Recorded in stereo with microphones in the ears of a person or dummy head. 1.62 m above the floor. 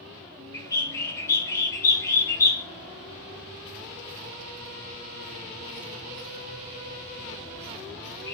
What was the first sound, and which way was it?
A bird, 20° left (ahead or behind).